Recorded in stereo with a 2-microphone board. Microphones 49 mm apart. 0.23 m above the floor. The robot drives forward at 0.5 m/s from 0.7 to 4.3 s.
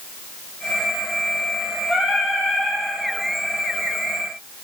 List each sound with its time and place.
1.9 s singing: 5° right (ahead or behind), 1.4 m